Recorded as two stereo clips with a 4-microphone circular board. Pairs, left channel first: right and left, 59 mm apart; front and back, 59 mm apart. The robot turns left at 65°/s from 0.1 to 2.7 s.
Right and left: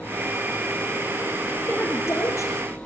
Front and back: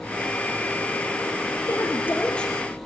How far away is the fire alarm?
No fire alarm in this recording.